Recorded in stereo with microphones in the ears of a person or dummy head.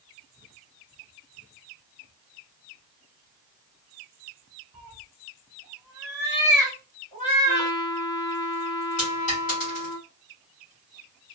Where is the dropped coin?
40° left (ahead or behind), 1.6 m.